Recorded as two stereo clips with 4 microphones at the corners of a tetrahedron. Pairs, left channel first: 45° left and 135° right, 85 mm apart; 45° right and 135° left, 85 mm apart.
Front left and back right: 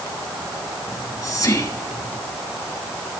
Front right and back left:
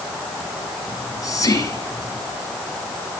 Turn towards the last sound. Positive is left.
turn(degrees=0)